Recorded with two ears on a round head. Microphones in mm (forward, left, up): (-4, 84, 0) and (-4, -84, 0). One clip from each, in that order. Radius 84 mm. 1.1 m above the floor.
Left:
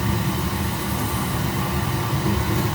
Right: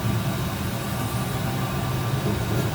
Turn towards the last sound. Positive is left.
turn(degrees=45)  # may be behind; listen again after turning